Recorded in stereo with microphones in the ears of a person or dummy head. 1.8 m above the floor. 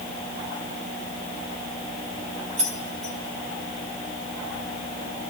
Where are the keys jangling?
35° right (ahead or behind), 1.8 m.